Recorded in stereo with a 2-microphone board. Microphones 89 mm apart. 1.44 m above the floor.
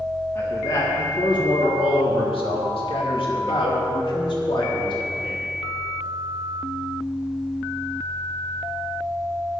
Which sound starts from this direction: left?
A man speaking, at 0.3 s.